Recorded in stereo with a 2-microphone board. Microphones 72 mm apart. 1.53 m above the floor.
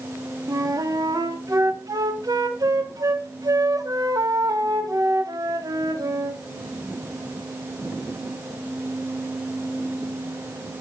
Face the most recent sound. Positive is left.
turn(degrees=-55)  # may be behind; listen again after turning